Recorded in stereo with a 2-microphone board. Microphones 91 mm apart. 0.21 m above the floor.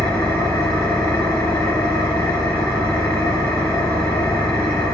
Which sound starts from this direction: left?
An engine running, at 0.0 s.